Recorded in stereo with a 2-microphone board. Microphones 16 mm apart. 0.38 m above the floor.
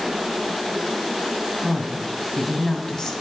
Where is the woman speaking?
40° left (ahead or behind), 2 m.